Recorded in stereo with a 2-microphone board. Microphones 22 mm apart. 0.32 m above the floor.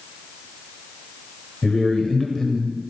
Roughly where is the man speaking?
Left.